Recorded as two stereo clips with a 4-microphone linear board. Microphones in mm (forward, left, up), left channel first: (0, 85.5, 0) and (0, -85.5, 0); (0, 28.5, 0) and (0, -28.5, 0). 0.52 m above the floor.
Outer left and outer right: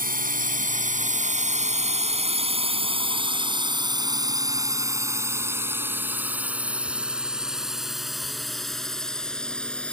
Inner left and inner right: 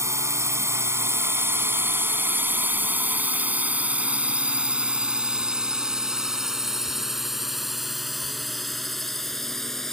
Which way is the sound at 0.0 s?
50° right (ahead or behind).